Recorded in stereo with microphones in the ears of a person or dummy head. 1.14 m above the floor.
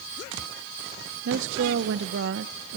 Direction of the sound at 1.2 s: 60° right (ahead or behind).